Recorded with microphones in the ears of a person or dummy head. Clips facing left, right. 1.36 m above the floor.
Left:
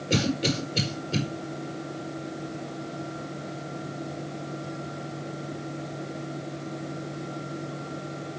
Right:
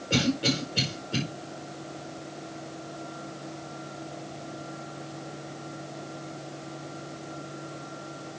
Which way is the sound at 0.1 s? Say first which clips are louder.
Even; 25° left (ahead or behind).